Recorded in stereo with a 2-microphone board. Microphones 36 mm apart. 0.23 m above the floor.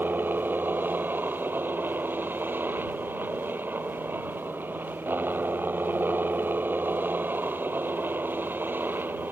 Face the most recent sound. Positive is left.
turn(degrees=-70)  # may be behind; listen again after turning